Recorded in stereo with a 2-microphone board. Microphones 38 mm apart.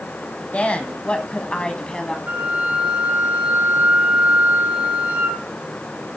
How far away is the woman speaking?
About 1.6 m.